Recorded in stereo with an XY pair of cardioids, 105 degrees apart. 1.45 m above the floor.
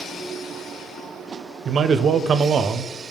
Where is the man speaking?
60° right, 0.6 m.